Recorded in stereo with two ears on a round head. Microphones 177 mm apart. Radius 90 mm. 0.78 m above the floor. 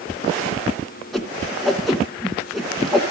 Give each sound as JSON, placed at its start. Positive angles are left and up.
{"t": 1.1, "sound": "a whoosh", "side_deg": 0, "distance_m": 2.0}